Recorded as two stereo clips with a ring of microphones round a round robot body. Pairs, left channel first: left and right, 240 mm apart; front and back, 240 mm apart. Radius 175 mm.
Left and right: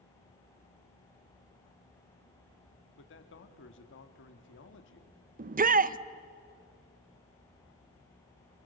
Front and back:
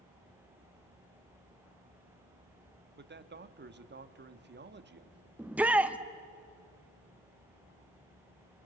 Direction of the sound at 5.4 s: 100° right.